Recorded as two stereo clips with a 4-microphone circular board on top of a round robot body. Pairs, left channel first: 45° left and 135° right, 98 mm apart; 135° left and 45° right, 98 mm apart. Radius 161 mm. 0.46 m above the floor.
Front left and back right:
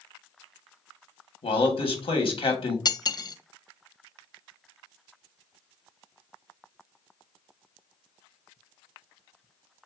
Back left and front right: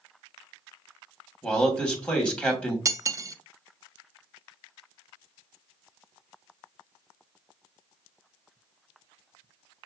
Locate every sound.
1.4 s a man speaking: 55° left, 1.5 m
2.9 s cutlery clinking: 5° left, 0.5 m